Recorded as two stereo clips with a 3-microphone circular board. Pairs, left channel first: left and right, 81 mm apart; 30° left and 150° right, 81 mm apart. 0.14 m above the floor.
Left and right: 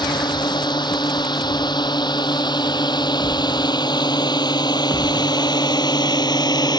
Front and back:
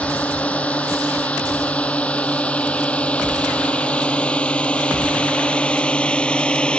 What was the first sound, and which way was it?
A drone, 100° left.